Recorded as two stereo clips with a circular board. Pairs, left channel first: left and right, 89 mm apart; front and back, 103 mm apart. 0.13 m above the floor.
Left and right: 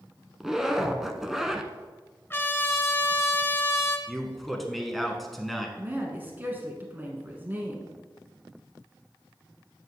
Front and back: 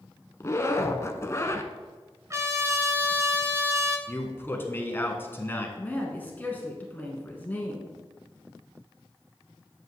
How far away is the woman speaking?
About 1.2 m.